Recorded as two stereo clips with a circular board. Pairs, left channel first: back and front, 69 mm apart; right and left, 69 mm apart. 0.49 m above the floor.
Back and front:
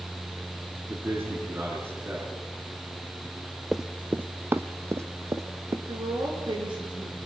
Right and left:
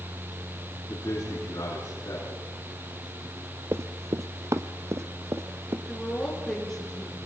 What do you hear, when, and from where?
0.9 s a man speaking: 55° right, 6 m
3.7 s running footsteps: 85° left, 0.6 m; by 5.8 s 45° left, 1.5 m
5.9 s a woman speaking: 5° right, 5 m